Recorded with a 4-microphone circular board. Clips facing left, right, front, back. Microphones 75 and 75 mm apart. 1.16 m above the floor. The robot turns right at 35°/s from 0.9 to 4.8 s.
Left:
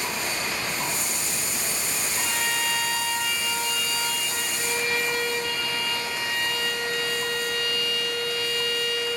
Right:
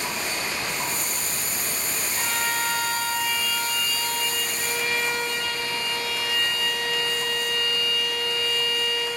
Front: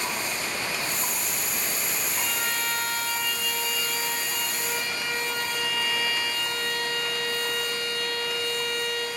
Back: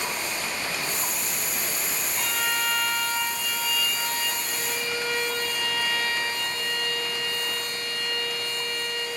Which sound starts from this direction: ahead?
A violin, at 2.1 s.